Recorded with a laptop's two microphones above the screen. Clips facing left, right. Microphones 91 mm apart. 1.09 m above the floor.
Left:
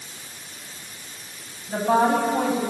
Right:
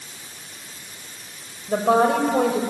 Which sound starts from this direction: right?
A woman speaking, at 1.7 s.